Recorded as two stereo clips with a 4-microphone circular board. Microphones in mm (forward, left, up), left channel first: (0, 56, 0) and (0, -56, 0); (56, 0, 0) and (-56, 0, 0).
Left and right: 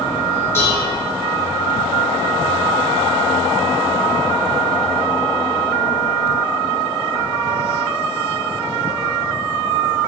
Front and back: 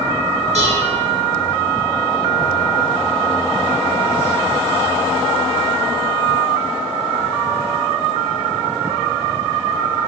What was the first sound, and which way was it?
Dishes clattering, 160° left.